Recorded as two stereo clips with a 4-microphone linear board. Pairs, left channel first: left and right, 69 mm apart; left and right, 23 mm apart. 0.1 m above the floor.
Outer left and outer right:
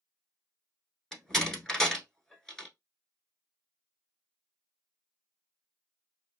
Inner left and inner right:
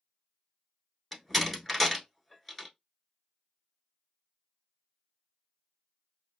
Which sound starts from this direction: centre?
A door slam, at 1.1 s.